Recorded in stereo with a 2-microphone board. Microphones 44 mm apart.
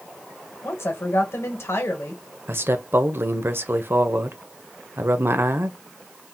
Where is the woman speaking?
85° left, 1.0 m.